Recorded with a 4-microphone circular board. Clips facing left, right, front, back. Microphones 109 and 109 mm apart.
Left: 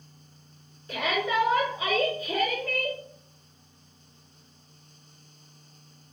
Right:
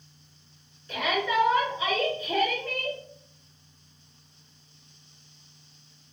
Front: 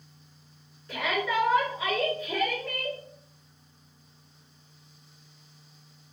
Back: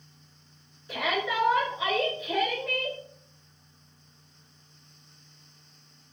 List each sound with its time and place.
0.9 s a shout: 110° left, 1.6 m